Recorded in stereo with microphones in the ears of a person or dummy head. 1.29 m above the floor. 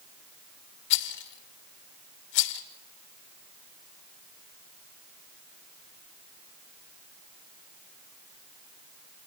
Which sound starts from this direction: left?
A rattle, at 0.9 s.